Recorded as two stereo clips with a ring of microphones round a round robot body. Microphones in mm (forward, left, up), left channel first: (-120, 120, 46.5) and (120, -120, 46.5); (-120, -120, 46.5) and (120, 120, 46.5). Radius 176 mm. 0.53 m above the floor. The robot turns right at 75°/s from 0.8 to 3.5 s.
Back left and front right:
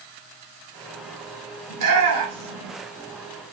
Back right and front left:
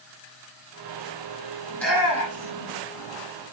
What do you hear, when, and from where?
1.7 s a shout: 60° right, 1.8 m; by 2.7 s 20° left, 1.8 m